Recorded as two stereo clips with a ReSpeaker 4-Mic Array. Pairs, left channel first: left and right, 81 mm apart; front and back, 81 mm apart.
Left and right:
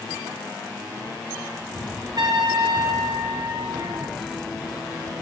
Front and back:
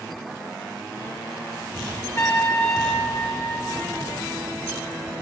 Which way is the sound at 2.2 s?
55° right.